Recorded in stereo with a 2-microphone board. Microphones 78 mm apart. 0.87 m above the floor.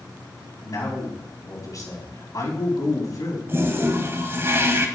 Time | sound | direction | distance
0.6 | a man speaking | 45° left (ahead or behind) | 5 m
3.5 | a toilet flushing | 30° right (ahead or behind) | 2.0 m